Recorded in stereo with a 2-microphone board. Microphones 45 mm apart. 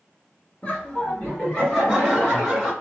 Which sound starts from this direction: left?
Laughter, at 0.6 s.